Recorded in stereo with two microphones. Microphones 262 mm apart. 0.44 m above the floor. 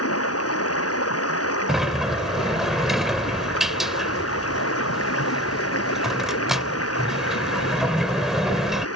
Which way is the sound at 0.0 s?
65° left (ahead or behind).